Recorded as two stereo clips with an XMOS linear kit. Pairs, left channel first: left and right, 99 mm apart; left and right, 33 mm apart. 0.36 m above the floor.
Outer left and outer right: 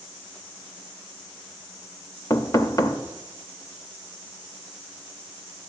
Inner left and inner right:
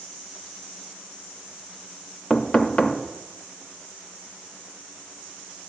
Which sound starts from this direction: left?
Knocking, at 2.3 s.